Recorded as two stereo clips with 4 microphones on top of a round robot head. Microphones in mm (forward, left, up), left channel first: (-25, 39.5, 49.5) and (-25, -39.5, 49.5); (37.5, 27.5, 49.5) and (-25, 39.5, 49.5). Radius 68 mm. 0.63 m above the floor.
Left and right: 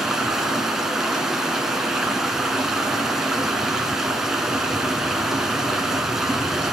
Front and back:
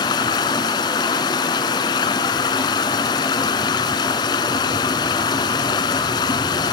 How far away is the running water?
About 1.5 m.